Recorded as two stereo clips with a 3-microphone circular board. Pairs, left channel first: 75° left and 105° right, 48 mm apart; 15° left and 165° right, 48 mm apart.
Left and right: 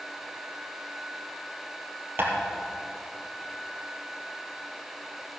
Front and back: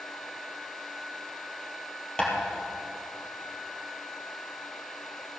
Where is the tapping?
60° right, 3 m.